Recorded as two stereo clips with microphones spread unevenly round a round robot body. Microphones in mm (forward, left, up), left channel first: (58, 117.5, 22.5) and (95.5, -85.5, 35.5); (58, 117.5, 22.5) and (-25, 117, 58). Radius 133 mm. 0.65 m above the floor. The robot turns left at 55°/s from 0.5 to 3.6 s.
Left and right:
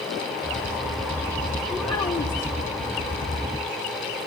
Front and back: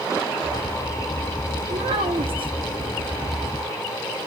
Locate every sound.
1.7 s a child speaking: 170° right, 0.8 m; by 2.5 s 145° left, 0.8 m